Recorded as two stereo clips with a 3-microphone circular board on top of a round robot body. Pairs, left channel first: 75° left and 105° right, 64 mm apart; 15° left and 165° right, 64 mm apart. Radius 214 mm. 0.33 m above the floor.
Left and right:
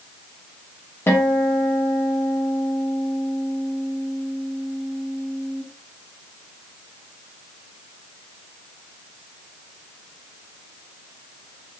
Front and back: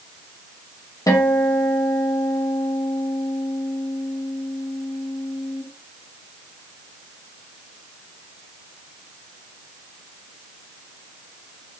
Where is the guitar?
25° left, 1.2 m.